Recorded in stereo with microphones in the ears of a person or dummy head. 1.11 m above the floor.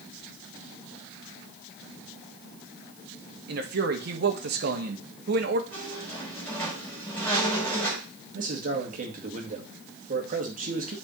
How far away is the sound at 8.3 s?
About 1.8 m.